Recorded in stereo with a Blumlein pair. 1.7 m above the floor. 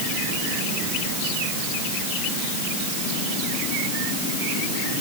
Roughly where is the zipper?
No zipper in this recording.